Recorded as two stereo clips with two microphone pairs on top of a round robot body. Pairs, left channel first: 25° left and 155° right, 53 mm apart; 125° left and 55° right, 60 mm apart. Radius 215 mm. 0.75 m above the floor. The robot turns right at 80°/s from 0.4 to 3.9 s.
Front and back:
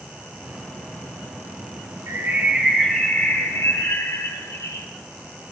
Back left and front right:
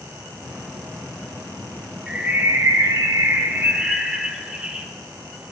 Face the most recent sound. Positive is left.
turn(degrees=20)